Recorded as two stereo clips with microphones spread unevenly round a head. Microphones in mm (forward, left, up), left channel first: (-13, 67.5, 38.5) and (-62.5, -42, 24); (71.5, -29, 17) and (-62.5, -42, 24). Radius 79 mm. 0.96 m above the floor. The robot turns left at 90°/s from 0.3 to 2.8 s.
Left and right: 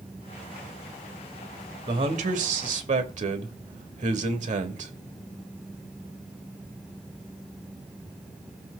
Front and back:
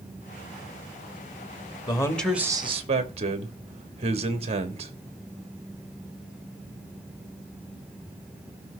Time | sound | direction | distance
1.9 | a man speaking | 45° right | 1.6 m